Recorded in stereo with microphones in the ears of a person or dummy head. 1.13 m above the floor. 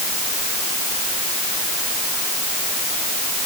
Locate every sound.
Only background noise.